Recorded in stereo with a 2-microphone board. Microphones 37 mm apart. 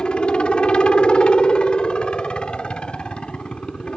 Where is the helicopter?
30° left (ahead or behind).